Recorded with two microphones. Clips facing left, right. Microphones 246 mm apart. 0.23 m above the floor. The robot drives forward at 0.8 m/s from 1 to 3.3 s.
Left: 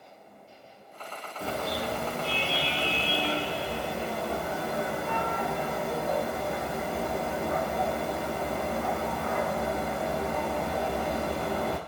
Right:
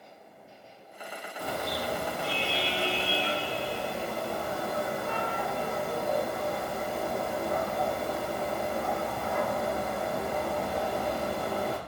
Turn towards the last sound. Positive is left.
turn(degrees=0)  # may be behind; listen again after turning